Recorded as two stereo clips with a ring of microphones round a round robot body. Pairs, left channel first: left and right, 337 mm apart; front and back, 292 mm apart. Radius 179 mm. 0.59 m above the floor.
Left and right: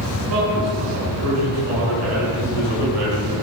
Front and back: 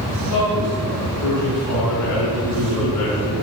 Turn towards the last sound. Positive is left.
turn(degrees=-45)